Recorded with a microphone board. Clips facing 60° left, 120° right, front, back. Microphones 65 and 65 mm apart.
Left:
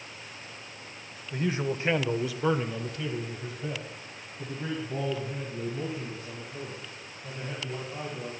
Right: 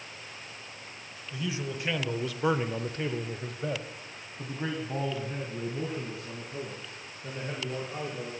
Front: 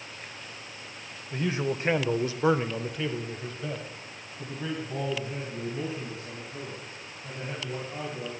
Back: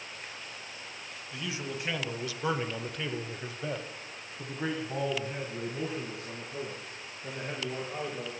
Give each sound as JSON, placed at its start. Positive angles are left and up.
{"t": 1.3, "sound": "a man speaking", "azimuth_deg": 35, "distance_m": 1.6}